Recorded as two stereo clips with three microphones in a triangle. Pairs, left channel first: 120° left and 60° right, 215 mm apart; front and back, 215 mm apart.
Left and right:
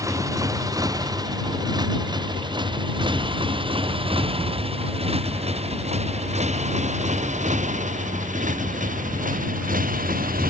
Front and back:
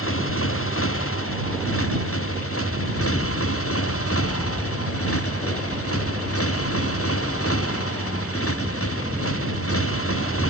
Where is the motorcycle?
15° left; by 10.5 s 10° right.